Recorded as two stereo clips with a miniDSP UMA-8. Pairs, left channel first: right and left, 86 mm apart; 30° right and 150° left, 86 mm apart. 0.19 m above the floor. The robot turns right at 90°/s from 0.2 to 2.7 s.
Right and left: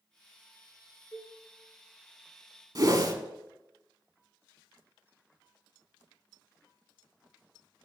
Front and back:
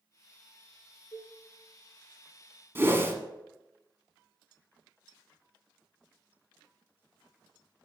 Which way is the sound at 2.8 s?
100° left.